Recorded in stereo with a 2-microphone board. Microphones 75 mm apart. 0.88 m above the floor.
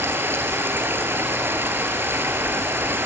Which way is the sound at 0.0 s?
30° right (ahead or behind).